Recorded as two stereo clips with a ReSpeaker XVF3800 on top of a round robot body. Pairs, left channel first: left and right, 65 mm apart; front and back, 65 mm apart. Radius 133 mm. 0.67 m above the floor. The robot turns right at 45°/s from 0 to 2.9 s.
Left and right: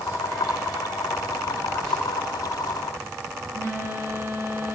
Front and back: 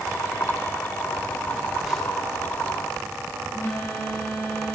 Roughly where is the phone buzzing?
Behind right.